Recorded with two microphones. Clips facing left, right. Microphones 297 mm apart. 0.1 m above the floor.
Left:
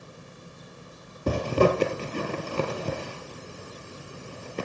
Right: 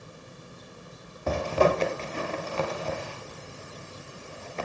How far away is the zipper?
About 2 m.